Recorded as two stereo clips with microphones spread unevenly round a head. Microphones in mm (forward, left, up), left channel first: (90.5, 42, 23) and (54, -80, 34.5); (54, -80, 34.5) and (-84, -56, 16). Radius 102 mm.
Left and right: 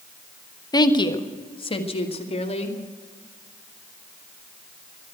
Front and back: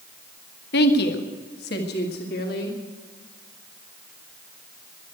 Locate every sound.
0.7 s a woman speaking: 15° left, 1.3 m; by 2.8 s 35° left, 2.5 m